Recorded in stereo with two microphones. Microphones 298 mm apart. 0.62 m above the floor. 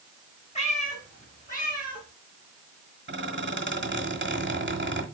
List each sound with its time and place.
0.6 s a cat meowing: 25° left (ahead or behind), 2.5 m; by 2.0 s 30° left (ahead or behind), 4 m
3.1 s a squeak: 40° right (ahead or behind), 1.3 m